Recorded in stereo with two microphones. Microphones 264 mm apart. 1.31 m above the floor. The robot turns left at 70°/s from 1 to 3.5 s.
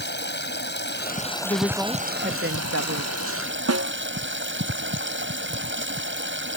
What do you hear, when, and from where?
0.0 s running water: 40° left; by 6.6 s 135° right
1.4 s a woman speaking: 25° left; by 3.4 s 115° right
3.7 s a snare drum: 65° right (ahead or behind)